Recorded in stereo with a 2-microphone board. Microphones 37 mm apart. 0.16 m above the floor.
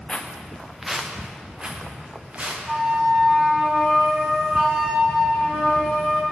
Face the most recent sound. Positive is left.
turn(degrees=-15)  # may be behind; listen again after turning